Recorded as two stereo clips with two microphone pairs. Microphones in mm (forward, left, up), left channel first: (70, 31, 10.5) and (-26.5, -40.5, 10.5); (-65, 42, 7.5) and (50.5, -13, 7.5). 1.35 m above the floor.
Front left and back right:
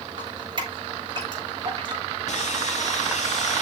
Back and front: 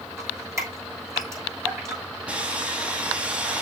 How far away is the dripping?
About 6 m.